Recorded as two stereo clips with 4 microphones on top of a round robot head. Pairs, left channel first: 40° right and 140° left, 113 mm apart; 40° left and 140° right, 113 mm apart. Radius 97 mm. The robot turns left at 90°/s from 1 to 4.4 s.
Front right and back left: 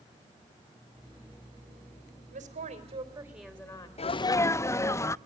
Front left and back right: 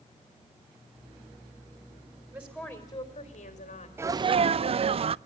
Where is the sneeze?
70° right, 0.6 m; by 5.2 s 105° right, 0.6 m.